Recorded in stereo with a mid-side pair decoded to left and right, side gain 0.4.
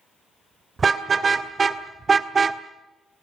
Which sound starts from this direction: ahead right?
A car horn, at 0.8 s.